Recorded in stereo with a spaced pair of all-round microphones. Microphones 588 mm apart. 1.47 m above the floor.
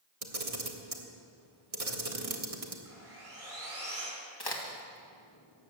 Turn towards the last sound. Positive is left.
turn(degrees=40)  # may be behind; listen again after turning